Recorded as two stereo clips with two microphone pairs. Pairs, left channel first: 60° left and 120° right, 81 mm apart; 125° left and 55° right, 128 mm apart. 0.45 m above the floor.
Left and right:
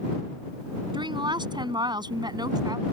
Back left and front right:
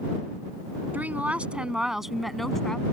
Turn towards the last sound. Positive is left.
turn(degrees=-150)